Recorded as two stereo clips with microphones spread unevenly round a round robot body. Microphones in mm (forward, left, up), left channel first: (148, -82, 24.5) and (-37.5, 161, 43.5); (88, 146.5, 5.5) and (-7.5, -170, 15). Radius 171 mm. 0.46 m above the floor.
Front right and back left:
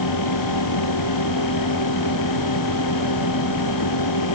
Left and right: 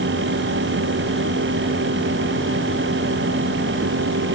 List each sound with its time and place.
Only background noise.